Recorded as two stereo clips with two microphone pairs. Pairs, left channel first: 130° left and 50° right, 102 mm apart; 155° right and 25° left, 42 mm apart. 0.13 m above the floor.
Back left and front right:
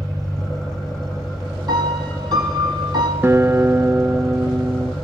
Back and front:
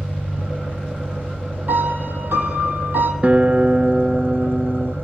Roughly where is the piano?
Ahead.